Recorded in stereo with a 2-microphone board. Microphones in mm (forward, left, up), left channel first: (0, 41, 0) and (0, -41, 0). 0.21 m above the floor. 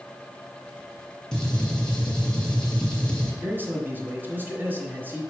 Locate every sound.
1.3 s a gunshot: 10° left (ahead or behind), 2.5 m
3.4 s a man speaking: 25° right (ahead or behind), 1.6 m